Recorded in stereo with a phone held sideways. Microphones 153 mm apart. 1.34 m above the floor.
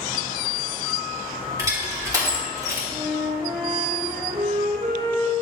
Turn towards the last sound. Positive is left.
turn(degrees=-40)  # may be behind; listen again after turning